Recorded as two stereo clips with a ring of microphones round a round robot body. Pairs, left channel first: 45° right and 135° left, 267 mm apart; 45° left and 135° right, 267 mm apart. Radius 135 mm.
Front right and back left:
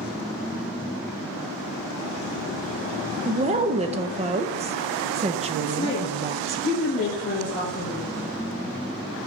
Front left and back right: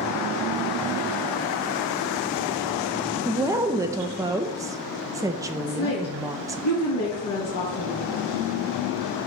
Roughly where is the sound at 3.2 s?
Behind.